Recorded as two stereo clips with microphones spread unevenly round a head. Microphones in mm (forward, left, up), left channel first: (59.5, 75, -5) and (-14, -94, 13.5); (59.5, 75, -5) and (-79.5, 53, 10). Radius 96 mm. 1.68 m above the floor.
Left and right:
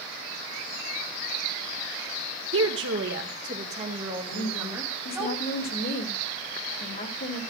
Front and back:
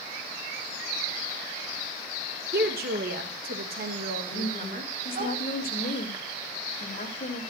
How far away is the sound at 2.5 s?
About 1.8 m.